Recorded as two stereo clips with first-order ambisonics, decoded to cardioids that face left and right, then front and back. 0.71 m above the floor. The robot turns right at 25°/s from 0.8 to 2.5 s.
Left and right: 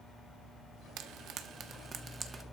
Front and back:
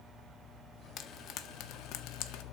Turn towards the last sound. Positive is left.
turn(degrees=-15)